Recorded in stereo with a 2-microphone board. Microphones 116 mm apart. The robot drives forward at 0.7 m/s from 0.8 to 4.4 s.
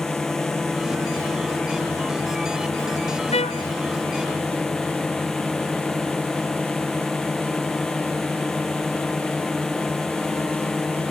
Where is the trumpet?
65° left (ahead or behind).